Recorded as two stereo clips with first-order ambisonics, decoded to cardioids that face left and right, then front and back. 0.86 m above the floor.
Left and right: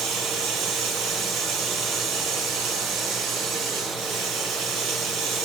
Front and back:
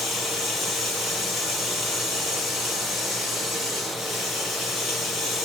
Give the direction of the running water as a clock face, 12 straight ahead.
2 o'clock.